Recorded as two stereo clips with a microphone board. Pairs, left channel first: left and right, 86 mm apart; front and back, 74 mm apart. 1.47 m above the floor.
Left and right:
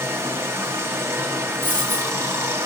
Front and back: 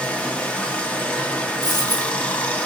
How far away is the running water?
About 0.8 m.